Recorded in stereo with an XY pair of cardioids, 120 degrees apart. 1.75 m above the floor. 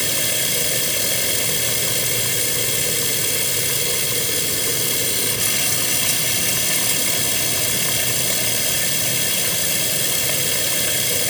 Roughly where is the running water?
Ahead.